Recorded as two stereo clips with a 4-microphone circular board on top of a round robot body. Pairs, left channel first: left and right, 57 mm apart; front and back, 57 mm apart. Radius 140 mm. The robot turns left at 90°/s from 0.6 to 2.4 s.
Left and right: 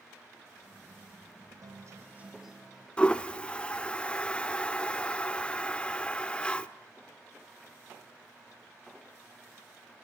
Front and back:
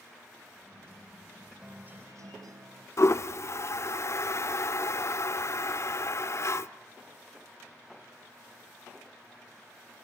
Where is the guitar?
100° right, 1.2 m; by 2.9 s 170° right, 1.2 m.